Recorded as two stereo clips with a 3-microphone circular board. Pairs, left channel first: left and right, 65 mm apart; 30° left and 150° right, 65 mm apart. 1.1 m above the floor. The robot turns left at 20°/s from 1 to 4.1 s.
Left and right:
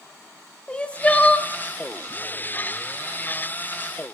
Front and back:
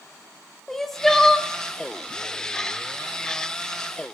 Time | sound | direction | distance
0.7 | crying | 105° left | 0.6 m